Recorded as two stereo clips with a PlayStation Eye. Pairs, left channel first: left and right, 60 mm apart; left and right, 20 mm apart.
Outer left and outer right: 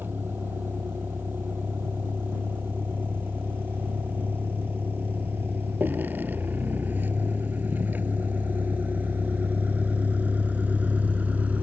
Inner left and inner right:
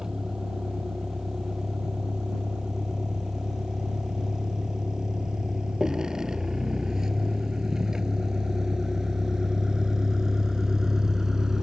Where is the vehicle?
35° right (ahead or behind); by 11.6 s 25° right (ahead or behind).